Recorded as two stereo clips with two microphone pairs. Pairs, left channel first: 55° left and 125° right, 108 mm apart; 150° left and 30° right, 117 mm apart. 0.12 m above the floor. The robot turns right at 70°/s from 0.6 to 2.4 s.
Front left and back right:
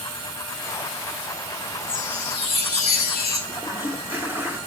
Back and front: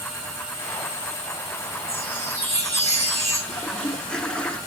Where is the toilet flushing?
150° right, 1.2 m.